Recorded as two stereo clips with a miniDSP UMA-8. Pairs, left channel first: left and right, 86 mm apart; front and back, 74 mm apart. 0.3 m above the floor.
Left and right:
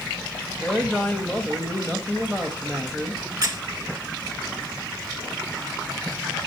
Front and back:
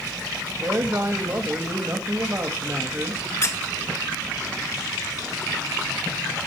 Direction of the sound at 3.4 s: 40° right.